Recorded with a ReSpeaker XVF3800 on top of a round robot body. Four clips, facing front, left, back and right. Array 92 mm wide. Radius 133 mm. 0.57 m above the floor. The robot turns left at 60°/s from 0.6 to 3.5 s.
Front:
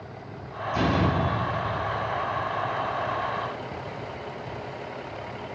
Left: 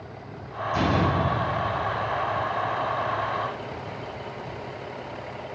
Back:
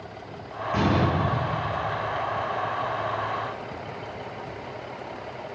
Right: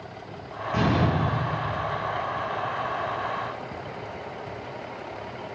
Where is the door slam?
140° right, 6 m; by 2.0 s 140° left, 6 m.